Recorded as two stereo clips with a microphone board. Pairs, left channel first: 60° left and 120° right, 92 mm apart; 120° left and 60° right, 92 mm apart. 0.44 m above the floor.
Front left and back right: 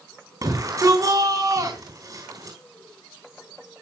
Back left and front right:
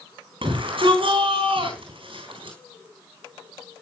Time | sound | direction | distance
0.4 | a shout | 70° right | 4 m